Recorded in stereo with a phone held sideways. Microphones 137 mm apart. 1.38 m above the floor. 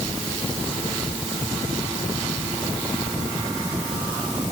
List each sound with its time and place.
Only background noise.